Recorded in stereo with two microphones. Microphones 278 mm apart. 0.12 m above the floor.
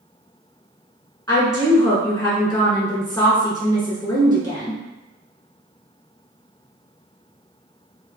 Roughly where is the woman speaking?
Centre.